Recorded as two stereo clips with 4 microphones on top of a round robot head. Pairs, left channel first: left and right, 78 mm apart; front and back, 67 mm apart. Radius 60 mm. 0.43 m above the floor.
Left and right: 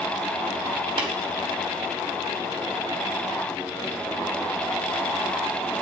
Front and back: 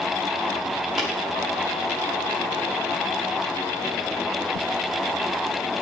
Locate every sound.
1.0 s tapping: 95° right, 3.5 m